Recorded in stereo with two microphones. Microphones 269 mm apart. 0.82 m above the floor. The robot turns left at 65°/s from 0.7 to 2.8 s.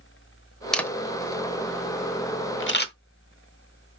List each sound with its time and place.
0.7 s a camera shutter: centre (ahead or behind), 0.9 m; by 2.9 s 40° left (ahead or behind), 0.9 m